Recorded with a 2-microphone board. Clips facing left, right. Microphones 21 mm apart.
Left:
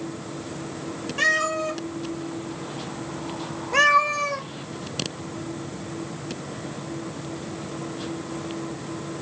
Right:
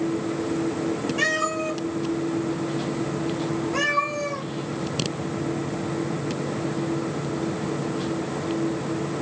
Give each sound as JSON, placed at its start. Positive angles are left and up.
{"t": 1.2, "sound": "a cat meowing", "side_deg": 10, "distance_m": 0.9}